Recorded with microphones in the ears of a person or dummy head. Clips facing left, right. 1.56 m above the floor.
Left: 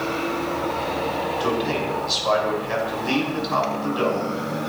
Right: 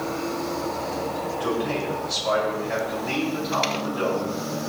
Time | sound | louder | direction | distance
1.4 | a man speaking | left 1 dB | 60° left (ahead or behind) | 6 m